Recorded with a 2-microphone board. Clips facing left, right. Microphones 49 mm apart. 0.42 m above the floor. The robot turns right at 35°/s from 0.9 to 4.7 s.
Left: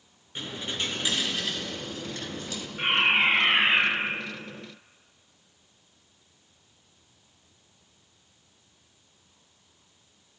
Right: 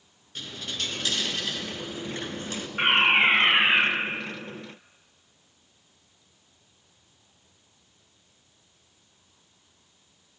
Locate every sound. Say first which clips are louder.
0.3 s a dropped coin: left 2 dB; 160° left, 2.5 m; by 2.7 s 135° right, 2.5 m
2.8 s a fire alarm: right 3 dB; 55° right, 4.5 m; by 3.9 s 15° right, 4.5 m